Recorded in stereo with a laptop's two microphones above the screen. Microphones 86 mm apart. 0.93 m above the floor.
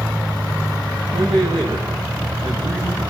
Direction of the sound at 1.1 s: 75° right (ahead or behind).